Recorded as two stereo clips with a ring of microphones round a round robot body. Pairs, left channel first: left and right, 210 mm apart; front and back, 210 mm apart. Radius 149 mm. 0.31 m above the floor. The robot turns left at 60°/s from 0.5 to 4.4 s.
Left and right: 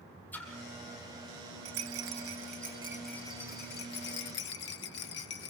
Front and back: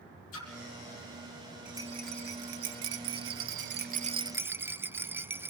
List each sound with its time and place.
0.3 s a splash: 10° left, 4 m; by 0.5 s 5° left, 4 m
1.6 s a rattle: 95° right, 0.8 m; by 5.5 s 100° left, 0.8 m